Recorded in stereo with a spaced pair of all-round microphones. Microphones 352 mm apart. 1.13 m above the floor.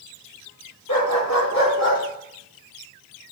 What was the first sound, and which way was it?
A dog barking, 55° left (ahead or behind).